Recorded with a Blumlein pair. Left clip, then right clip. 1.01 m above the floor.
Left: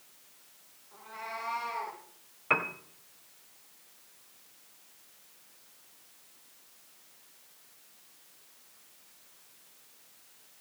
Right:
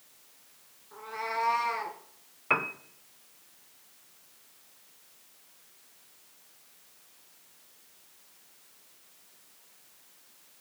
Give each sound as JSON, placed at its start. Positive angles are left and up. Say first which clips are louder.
{"t": 0.9, "sound": "a cat meowing", "louder": "right 7 dB", "azimuth_deg": -70, "distance_m": 2.5}
{"t": 2.5, "sound": "a piano", "louder": "right 1 dB", "azimuth_deg": 0, "distance_m": 0.9}